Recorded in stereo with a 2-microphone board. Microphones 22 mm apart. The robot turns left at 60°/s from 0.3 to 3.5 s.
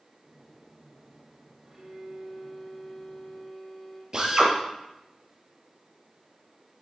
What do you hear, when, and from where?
1.6 s a violin: 155° right, 6.5 m; by 4.0 s 90° left, 6.5 m
4.1 s a drill: 30° right (ahead or behind), 3.5 m